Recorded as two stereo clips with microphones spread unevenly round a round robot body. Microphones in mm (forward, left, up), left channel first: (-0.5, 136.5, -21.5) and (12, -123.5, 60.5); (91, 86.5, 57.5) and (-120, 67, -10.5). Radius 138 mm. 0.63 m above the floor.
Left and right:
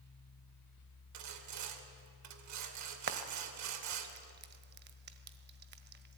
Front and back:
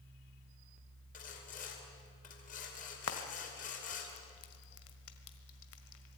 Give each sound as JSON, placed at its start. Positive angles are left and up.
{"t": 1.1, "sound": "sawing", "azimuth_deg": -60, "distance_m": 2.0}
{"t": 3.1, "sound": "frying", "azimuth_deg": -35, "distance_m": 1.5}